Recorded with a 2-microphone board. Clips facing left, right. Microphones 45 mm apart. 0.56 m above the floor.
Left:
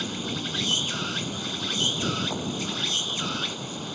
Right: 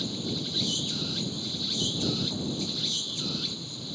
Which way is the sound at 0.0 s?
55° left (ahead or behind).